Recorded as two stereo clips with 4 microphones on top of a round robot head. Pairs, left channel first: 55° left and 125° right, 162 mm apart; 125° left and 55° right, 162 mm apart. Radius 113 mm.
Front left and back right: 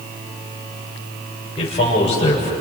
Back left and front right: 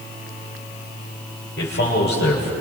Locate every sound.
1.6 s a man speaking: 110° left, 7 m